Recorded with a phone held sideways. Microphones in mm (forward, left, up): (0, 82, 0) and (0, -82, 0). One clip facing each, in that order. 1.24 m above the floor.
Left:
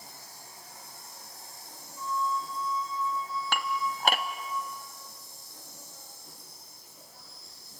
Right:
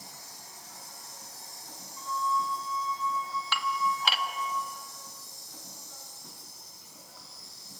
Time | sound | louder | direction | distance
0.0 | an insect | even | 80° right | 5.5 m
2.0 | a flute | even | 50° left (ahead or behind) | 2 m
3.5 | dishes clattering | right 2 dB | 50° left (ahead or behind) | 0.9 m